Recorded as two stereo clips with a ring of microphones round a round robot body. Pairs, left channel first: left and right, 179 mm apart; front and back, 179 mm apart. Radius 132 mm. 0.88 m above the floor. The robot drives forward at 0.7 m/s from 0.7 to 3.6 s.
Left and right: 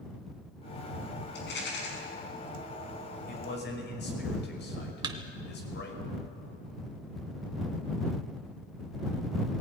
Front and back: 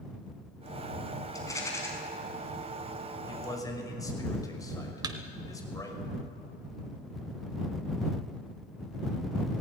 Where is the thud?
130° right, 0.6 m.